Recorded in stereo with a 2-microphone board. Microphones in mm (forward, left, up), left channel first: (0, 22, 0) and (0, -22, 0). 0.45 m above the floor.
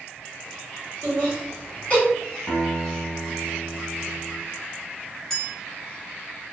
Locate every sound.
1.0 s laughter: 30° left (ahead or behind), 1.6 m
2.5 s a guitar: 65° left (ahead or behind), 1.2 m
5.3 s a clink: 10° left (ahead or behind), 0.8 m